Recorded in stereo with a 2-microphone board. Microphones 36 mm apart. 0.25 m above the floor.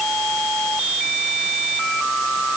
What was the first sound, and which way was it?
Only background noise.